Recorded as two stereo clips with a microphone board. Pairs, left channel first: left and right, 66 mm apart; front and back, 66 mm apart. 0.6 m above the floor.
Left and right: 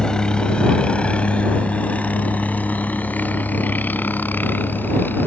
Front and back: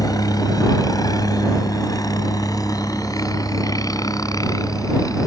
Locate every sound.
0.0 s a helicopter: 15° left; by 5.3 s 30° left